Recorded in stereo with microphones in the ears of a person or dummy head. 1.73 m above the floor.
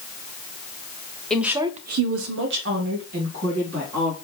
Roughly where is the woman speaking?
Centre.